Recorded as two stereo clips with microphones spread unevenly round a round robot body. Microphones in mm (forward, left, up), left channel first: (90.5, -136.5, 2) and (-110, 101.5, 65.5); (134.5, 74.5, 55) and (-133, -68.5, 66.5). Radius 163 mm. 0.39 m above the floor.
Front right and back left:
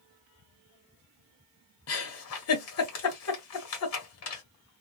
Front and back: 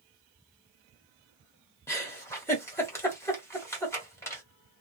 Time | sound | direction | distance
1.9 | a giggle | 50° right | 1.5 m